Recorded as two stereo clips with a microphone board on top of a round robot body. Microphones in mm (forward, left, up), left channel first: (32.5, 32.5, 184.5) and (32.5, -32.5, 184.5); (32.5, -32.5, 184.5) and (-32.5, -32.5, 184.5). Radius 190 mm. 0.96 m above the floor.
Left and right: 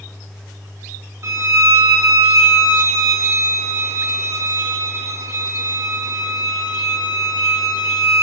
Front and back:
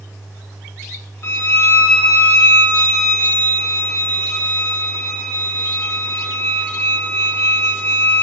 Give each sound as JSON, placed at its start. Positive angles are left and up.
{"t": 1.2, "sound": "a violin", "azimuth_deg": -50, "distance_m": 1.0}